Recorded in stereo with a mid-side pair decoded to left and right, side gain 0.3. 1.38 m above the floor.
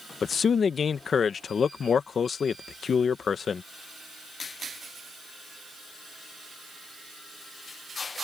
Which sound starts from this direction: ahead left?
A man speaking, at 0.2 s.